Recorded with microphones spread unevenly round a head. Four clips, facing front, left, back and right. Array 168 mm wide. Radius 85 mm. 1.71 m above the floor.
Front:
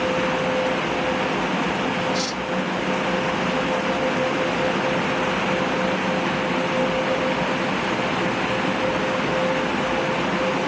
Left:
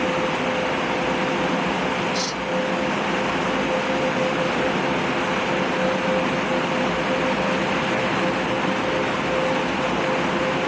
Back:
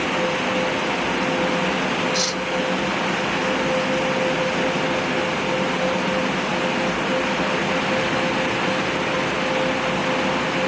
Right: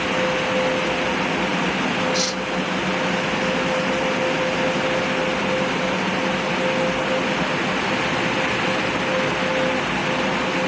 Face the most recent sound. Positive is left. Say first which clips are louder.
# right 2 dB, back 1 dB
turn(degrees=-135)